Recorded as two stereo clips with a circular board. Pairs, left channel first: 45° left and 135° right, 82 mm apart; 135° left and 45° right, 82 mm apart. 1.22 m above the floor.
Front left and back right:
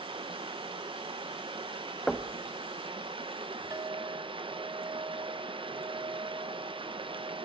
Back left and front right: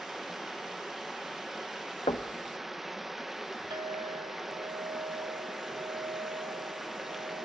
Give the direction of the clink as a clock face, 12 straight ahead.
3 o'clock.